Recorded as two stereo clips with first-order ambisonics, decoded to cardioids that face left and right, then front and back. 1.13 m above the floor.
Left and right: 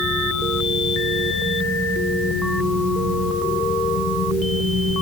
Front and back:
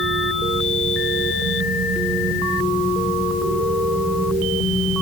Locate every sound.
Only background noise.